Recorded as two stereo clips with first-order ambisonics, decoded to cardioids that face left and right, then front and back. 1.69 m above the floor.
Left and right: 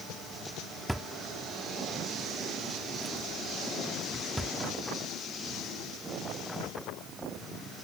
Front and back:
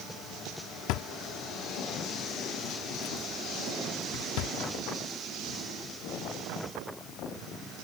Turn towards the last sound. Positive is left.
turn(degrees=0)